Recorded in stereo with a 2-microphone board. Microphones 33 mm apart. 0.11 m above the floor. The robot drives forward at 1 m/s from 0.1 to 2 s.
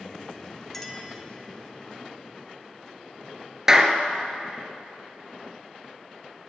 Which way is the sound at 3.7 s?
15° right (ahead or behind).